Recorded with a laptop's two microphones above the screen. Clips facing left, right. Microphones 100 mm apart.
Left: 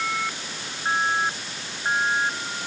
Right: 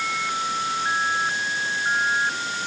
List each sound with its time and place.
Only background noise.